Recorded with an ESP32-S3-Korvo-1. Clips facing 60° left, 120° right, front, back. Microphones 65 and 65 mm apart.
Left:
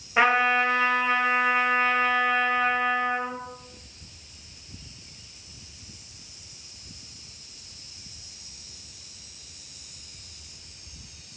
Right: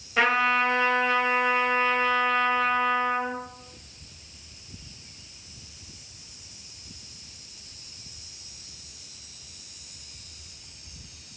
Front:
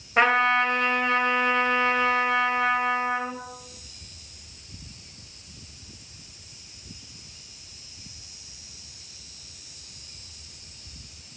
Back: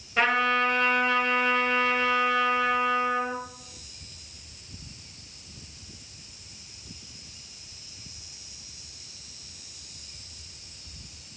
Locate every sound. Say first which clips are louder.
0.2 s a trumpet: left 1 dB, front 3 dB; 5° left, 0.5 m